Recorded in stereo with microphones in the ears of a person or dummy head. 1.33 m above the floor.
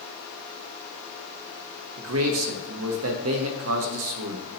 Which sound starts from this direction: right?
A man speaking, at 2.0 s.